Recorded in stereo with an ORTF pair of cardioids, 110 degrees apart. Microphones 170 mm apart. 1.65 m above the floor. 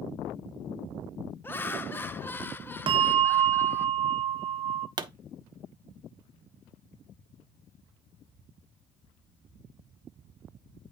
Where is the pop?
25° right, 0.7 m.